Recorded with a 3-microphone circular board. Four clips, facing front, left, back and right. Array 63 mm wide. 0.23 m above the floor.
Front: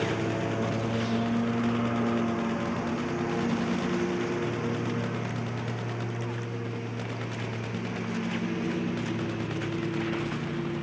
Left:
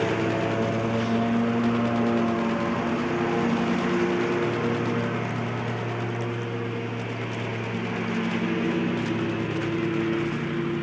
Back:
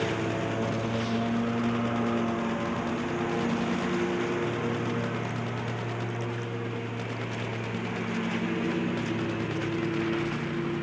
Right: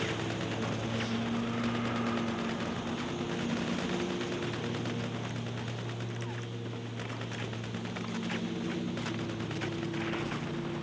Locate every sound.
0.0 s a lawn mower: 95° left; by 10.8 s 115° left